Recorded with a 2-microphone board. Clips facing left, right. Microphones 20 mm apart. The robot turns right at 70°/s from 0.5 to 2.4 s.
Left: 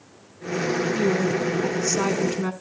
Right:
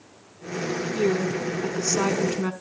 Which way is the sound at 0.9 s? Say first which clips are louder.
Right 2 dB; centre (ahead or behind).